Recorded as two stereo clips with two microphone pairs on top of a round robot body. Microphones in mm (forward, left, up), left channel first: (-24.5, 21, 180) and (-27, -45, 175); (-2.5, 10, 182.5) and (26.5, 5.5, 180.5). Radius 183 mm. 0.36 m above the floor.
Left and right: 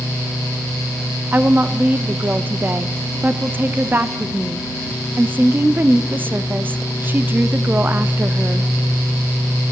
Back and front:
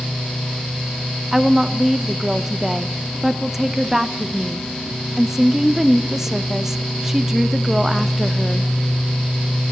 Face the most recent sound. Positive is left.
turn(degrees=-70)